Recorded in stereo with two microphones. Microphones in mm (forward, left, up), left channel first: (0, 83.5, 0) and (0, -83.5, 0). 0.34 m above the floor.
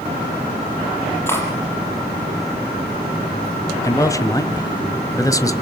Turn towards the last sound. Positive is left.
turn(degrees=20)  # may be behind; listen again after turning